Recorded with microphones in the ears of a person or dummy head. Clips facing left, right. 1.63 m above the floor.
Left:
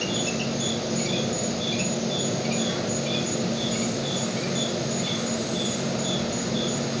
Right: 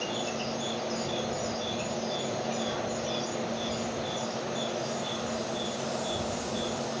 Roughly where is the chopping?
I don't hear chopping.